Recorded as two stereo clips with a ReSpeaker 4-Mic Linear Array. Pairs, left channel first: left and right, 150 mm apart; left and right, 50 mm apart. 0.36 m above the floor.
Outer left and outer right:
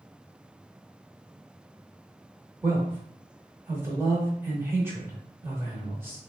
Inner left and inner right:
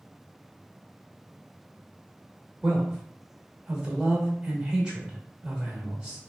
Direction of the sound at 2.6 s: 15° right (ahead or behind).